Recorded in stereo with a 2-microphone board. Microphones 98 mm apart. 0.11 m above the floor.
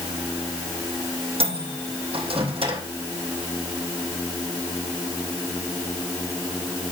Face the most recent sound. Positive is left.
turn(degrees=-70)  # may be behind; listen again after turning